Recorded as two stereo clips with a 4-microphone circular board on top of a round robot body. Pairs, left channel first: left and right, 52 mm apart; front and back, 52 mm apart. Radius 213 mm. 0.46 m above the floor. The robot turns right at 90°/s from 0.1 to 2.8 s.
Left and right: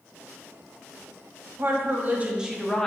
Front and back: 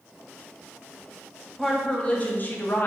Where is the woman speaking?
95° right, 0.9 m; by 2.9 s 15° left, 0.9 m.